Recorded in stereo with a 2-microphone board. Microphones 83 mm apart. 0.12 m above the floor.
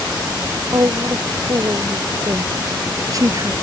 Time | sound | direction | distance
0.7 | a woman speaking | 40° right (ahead or behind) | ?